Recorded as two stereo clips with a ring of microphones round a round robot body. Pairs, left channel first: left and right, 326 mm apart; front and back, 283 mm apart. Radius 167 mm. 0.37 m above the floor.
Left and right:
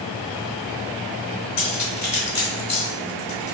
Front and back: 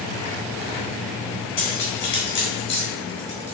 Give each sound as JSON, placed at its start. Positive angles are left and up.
{"t": 1.6, "sound": "cutlery clinking", "azimuth_deg": 45, "distance_m": 2.0}